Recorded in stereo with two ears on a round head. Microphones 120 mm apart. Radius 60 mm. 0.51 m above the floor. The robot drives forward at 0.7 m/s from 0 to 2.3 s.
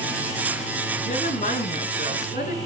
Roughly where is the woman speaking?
Left.